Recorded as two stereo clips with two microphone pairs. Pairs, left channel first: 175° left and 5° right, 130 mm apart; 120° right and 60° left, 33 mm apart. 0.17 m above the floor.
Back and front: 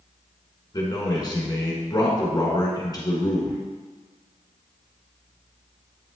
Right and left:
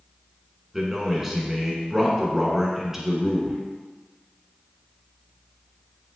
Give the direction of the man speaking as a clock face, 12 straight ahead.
8 o'clock.